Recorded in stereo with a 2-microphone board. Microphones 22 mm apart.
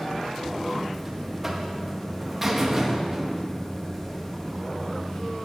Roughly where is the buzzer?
Centre.